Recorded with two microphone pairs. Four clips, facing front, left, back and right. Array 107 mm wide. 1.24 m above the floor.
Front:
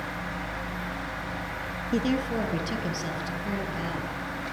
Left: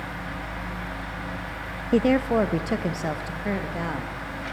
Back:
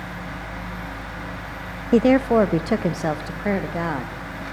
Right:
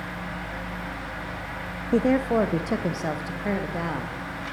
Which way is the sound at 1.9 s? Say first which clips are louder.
Left 1 dB, back 11 dB; 170° left.